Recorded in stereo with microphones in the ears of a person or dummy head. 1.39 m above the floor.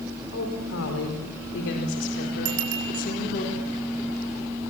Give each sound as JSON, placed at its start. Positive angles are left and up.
{"t": 0.3, "sound": "a woman speaking", "side_deg": 85, "distance_m": 5.0}
{"t": 2.5, "sound": "a bicycle bell", "side_deg": -85, "distance_m": 6.5}